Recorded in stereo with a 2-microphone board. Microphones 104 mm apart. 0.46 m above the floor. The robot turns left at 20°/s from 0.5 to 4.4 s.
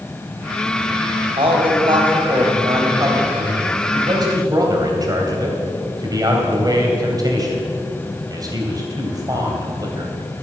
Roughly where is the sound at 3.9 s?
Right.